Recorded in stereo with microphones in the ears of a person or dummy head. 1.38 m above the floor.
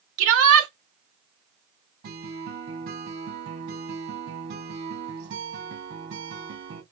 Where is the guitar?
50° right (ahead or behind), 2.5 m.